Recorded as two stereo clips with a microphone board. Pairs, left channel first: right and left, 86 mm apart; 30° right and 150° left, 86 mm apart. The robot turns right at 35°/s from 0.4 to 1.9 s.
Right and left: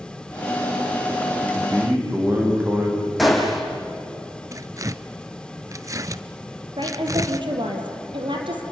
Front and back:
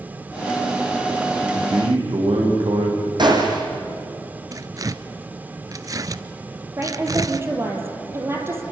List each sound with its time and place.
1.4 s a man speaking: 140° left, 7 m; by 3.1 s 160° left, 7 m
3.2 s a gunshot: straight behind, 3.5 m
4.5 s tearing paper: 125° left, 0.7 m
6.8 s a woman speaking: 90° left, 4 m